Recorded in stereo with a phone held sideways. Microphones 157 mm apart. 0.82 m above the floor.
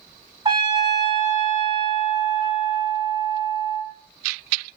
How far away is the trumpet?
About 1.0 m.